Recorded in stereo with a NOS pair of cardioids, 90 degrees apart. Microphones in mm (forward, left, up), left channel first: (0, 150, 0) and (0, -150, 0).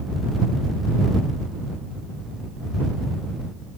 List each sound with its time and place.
Only background noise.